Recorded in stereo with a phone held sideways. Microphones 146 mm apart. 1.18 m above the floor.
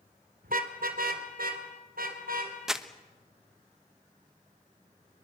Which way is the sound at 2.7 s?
5° right (ahead or behind).